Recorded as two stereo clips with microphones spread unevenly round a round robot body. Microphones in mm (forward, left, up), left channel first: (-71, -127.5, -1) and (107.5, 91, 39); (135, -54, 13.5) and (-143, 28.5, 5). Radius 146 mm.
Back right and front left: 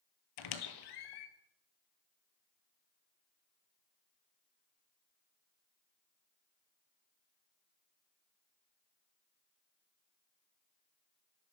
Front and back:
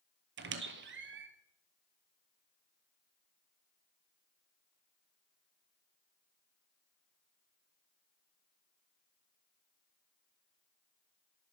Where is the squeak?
140° right, 1.4 m.